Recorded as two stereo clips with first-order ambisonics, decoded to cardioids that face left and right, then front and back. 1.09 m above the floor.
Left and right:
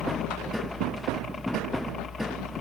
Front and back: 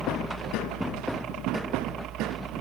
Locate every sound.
0.0 s a helicopter: 160° left; by 2.6 s 155° left